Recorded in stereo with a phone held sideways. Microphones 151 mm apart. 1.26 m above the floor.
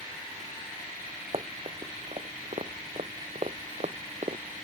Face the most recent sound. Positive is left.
turn(degrees=-45)  # may be behind; listen again after turning